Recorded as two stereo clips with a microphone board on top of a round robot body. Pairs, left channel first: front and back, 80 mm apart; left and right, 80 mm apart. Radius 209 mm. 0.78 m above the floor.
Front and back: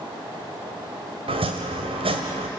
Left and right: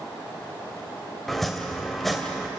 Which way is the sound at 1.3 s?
Straight behind.